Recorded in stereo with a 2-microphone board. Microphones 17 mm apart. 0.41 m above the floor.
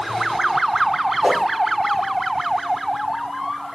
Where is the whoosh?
65° right (ahead or behind), 3 m.